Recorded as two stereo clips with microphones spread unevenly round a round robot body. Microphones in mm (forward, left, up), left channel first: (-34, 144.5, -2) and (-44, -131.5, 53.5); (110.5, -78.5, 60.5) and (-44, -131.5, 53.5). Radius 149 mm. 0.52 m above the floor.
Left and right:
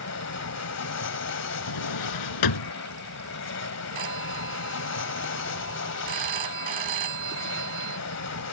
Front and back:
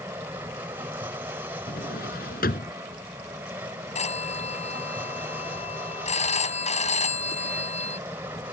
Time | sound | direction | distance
0.0 | an aircraft | 120° left | ?
1.7 | a drawer | 75° left | ?
4.0 | a phone ringing | 25° right | ?